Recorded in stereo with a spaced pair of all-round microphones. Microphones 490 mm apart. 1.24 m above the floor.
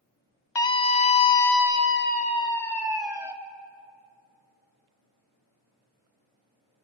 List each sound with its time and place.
0.6 s a scream: 60° left (ahead or behind), 1.0 m; by 3.3 s 5° right (ahead or behind), 1.8 m